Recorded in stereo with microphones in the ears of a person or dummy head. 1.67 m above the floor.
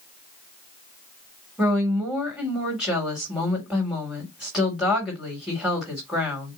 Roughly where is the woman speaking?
Centre.